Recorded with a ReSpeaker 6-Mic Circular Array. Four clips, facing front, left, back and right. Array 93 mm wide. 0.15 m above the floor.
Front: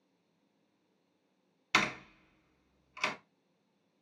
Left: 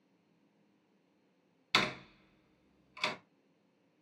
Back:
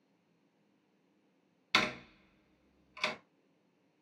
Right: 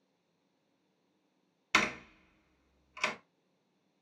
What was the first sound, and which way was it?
A door slam, 55° right.